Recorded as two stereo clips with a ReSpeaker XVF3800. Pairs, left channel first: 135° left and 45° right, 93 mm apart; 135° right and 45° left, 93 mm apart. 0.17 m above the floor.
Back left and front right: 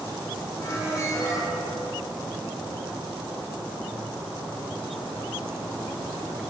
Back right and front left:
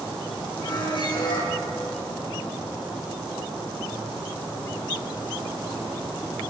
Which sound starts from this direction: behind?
A squeak, at 0.6 s.